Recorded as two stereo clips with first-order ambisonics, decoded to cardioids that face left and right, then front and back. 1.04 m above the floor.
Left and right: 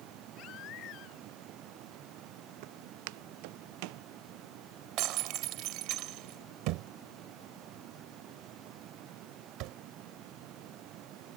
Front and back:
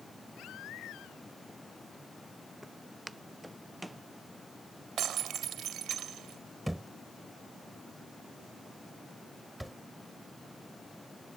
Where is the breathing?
No breathing in this recording.